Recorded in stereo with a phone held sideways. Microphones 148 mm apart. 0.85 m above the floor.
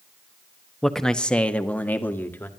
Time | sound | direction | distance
0.8 | a man speaking | centre (ahead or behind) | 0.9 m